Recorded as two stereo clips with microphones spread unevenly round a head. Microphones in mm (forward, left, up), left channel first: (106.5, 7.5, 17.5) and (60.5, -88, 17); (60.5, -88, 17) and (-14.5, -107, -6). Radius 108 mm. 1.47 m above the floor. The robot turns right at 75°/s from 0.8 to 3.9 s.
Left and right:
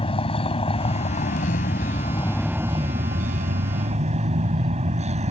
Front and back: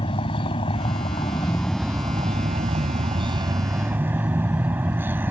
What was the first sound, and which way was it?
A vehicle, 30° left.